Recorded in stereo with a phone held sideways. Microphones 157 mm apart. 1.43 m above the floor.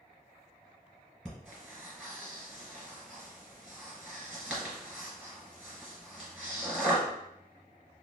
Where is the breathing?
Centre (ahead or behind), 1.5 m.